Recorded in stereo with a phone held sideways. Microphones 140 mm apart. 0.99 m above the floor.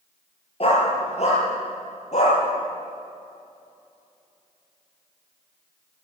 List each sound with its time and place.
0.6 s a dog barking: 45° left (ahead or behind), 6.5 m; by 2.4 s 55° left (ahead or behind), 8.5 m